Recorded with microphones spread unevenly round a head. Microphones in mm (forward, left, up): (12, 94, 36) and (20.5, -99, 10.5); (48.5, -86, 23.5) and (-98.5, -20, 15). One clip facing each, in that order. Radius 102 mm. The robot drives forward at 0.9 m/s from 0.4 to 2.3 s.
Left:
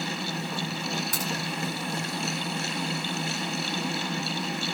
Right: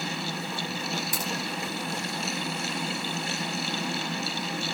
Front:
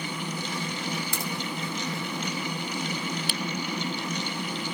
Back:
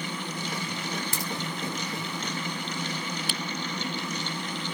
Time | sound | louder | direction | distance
1.1 | a crack | even, front 1 dB | 155° right | 5 m